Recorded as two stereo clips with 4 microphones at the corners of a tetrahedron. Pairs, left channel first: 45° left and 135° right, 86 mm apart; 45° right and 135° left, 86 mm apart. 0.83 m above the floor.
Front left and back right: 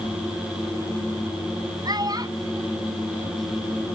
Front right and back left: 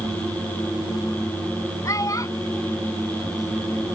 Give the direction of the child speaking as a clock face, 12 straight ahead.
3 o'clock.